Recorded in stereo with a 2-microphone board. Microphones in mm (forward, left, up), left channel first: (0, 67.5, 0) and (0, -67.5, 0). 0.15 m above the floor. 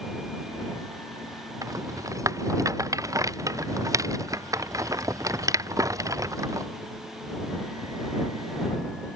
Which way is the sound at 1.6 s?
25° right (ahead or behind).